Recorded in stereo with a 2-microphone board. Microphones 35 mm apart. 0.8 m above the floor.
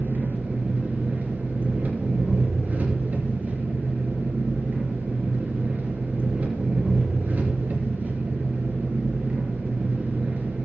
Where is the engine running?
60° right (ahead or behind), 3.5 m.